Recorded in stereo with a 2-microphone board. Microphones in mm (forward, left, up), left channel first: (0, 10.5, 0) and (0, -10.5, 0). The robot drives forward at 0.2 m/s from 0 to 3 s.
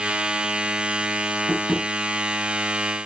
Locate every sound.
1.5 s tapping: 40° left (ahead or behind), 5.5 m